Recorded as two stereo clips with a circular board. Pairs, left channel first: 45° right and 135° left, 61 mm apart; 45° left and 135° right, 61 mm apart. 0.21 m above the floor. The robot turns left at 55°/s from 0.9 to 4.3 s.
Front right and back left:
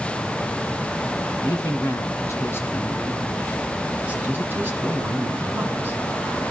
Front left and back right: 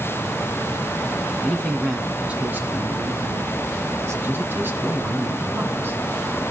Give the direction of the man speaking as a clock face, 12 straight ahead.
1 o'clock.